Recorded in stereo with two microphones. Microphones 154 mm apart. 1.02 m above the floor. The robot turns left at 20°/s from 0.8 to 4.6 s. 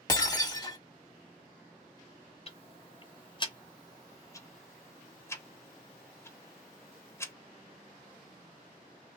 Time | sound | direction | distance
0.1 | breaking glass | 25° left (ahead or behind) | 1.1 m
2.5 | ticking | 40° left (ahead or behind) | 0.7 m